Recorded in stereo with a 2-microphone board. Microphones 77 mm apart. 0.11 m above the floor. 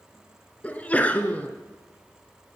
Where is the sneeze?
20° left (ahead or behind), 1.3 m.